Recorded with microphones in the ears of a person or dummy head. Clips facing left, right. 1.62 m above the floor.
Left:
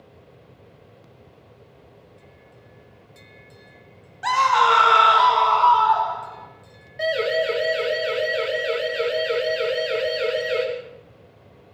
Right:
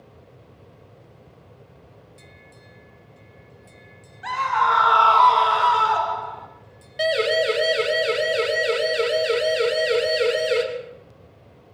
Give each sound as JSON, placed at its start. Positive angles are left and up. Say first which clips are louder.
{"t": 4.2, "sound": "a scream", "louder": "left 4 dB", "side_deg": 55, "distance_m": 1.8}
{"t": 7.0, "sound": "a siren", "louder": "right 1 dB", "side_deg": -45, "distance_m": 5.5}